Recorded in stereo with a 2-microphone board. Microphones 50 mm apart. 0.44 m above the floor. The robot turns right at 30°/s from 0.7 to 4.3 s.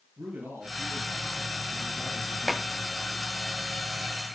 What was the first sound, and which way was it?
A man speaking, 135° right.